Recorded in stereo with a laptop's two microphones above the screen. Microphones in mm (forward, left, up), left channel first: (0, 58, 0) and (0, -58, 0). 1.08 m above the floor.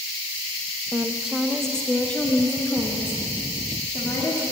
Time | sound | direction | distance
0.9 | a woman speaking | 20° right (ahead or behind) | 0.6 m